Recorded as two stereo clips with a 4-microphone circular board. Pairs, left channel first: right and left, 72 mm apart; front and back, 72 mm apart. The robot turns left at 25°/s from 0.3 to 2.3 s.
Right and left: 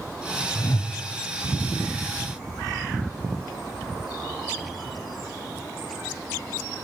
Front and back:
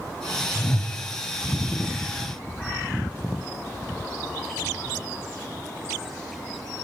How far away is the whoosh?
About 1.2 m.